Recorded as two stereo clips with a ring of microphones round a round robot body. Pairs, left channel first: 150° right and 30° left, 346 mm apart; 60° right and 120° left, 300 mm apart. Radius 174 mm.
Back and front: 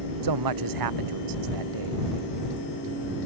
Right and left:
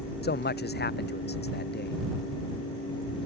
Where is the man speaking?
5° right.